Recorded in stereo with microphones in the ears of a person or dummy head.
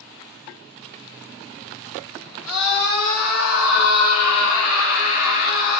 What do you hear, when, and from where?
2.5 s a scream: 85° left, 4 m; by 5.8 s 55° left (ahead or behind), 7.5 m